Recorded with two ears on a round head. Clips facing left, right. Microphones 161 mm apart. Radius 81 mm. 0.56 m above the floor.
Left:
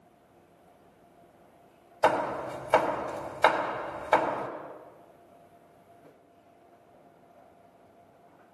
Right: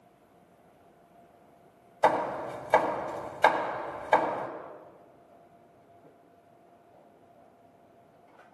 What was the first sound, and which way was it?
Hammering, 5° right (ahead or behind).